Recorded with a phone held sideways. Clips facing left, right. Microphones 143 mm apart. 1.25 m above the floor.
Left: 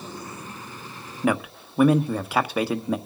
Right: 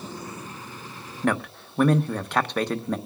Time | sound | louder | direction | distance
1.2 | a man speaking | left 2 dB | 5° left (ahead or behind) | 1.1 m